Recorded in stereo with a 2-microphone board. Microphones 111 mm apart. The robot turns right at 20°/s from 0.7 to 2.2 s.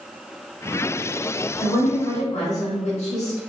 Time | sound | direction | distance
1.6 | a woman speaking | 75° left (ahead or behind) | 1.4 m